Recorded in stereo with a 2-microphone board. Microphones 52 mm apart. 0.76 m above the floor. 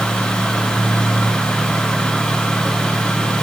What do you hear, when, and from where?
Only background noise.